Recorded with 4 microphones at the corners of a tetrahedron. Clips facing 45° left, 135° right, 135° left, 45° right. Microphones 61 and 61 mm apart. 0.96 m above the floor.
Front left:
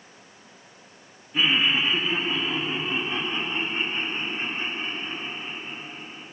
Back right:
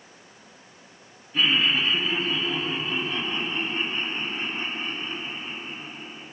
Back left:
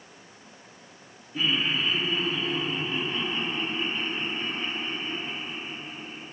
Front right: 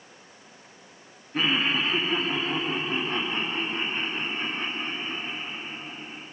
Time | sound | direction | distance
1.3 | laughter | 35° right | 1.5 m